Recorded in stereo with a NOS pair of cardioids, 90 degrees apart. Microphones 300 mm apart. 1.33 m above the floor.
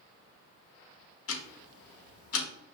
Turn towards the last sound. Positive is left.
turn(degrees=50)